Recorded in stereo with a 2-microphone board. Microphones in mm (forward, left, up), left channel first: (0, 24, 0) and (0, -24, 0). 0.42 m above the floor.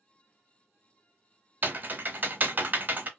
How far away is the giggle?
I don't hear a giggle.